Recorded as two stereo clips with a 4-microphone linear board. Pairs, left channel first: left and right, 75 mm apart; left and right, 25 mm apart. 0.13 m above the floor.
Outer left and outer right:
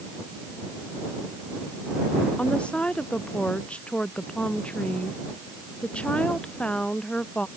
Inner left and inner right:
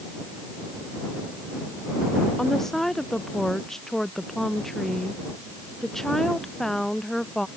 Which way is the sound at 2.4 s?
15° left (ahead or behind).